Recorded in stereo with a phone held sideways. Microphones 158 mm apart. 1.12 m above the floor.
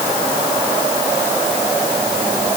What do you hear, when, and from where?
Only background noise.